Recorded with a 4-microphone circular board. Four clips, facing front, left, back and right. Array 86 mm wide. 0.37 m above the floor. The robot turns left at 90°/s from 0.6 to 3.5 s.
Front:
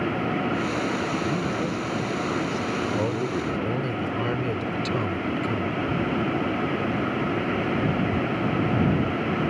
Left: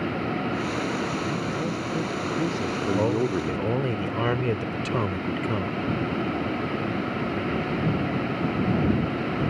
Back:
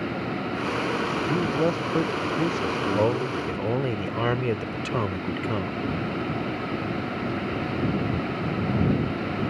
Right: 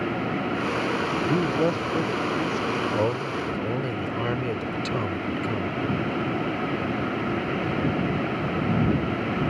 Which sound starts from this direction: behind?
A man speaking, at 3.0 s.